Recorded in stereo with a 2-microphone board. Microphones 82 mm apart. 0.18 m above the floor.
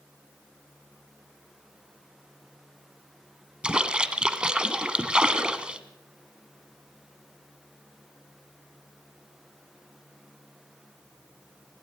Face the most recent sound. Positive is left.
turn(degrees=-10)  # may be behind; listen again after turning